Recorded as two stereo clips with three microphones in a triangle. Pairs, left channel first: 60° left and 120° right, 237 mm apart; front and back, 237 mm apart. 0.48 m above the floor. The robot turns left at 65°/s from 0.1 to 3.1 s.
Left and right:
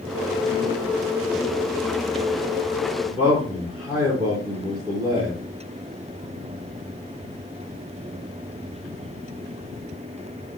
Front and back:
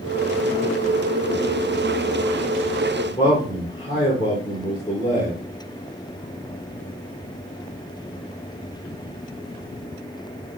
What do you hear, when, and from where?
3.0 s a man speaking: 45° right, 1.1 m; by 5.4 s 50° right, 1.1 m